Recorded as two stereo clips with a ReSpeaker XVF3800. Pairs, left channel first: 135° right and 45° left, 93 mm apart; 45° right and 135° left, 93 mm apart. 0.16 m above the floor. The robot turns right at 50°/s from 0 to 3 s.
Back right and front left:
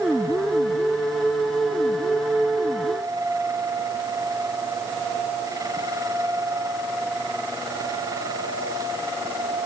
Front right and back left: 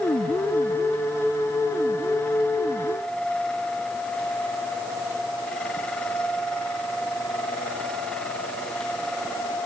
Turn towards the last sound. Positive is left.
No sound to turn to.